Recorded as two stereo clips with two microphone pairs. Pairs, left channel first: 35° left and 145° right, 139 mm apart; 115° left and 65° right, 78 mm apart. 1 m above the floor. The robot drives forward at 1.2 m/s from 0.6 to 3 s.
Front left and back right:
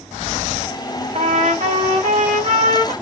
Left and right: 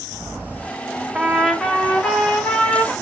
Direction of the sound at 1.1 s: 140° right.